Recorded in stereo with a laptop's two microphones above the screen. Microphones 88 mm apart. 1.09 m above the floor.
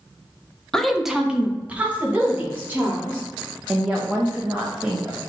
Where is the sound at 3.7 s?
15° right (ahead or behind), 0.5 m.